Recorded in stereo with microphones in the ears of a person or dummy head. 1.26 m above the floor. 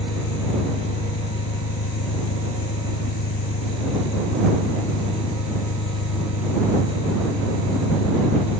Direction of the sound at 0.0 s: 80° left.